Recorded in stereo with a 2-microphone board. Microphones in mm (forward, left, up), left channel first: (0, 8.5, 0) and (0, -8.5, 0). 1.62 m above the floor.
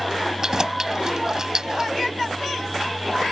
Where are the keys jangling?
35° right (ahead or behind).